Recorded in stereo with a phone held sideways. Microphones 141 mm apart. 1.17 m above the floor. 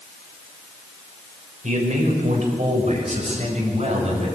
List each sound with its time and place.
1.6 s a man speaking: 75° right (ahead or behind), 5 m; by 4.3 s 55° right (ahead or behind), 7 m